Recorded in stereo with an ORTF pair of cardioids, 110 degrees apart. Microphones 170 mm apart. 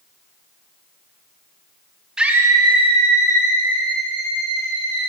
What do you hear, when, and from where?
2.2 s a scream: 5° right, 1.0 m; by 5.1 s 70° right, 2.5 m